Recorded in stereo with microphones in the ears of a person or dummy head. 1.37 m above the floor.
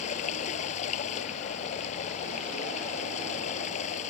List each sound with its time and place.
0.0 s running water: 40° left (ahead or behind)